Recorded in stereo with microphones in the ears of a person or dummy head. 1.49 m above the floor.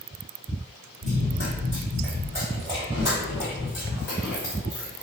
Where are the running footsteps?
40° right (ahead or behind), 1.9 m; by 5.0 s centre (ahead or behind), 3 m.